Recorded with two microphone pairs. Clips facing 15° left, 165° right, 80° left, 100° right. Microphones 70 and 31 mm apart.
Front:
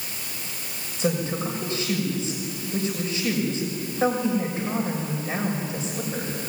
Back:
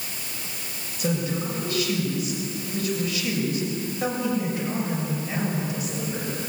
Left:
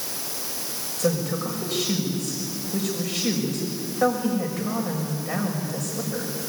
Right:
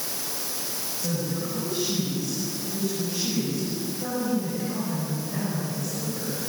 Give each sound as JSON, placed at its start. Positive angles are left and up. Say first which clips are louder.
{"t": 1.0, "sound": "a woman speaking", "louder": "front 1 dB, left 6 dB", "azimuth_deg": 75, "distance_m": 6.5}